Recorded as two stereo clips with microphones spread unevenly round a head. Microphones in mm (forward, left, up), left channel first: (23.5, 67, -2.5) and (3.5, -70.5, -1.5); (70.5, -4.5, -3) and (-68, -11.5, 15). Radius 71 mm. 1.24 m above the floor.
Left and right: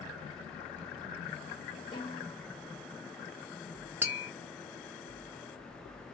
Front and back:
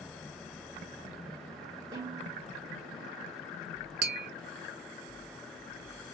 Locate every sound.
1.9 s a snare drum: 135° left, 1.3 m
4.0 s tapping: 175° right, 0.6 m